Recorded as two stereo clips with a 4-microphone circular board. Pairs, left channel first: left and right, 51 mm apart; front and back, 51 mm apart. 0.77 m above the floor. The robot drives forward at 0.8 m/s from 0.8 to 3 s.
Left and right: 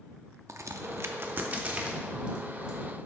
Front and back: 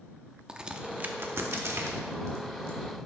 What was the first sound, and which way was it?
A crack, 105° right.